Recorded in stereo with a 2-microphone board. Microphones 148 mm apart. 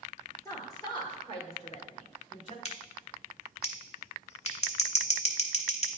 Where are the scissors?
45° left (ahead or behind), 0.9 m.